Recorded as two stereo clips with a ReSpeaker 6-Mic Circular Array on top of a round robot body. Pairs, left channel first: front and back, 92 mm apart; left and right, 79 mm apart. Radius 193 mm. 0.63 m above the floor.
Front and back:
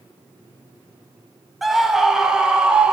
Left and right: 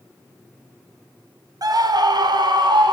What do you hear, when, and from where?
1.6 s a scream: 90° right, 0.9 m; by 2.9 s 100° right, 1.5 m